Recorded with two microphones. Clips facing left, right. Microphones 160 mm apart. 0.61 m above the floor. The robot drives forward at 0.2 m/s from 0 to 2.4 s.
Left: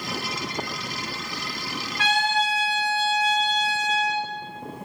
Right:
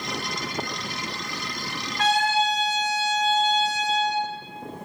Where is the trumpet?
40° right (ahead or behind), 1.6 m.